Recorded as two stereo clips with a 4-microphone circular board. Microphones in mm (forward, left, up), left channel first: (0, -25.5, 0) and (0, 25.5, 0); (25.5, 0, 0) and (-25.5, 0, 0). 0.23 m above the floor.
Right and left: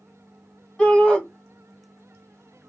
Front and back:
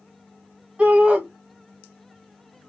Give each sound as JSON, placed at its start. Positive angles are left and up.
{"t": 0.8, "sound": "a shout", "azimuth_deg": -150, "distance_m": 1.4}